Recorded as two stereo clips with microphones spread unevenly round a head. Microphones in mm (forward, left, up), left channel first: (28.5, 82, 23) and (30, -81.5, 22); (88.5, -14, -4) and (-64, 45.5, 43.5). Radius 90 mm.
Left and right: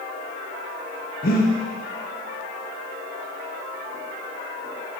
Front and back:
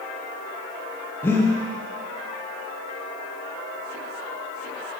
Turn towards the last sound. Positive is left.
turn(degrees=65)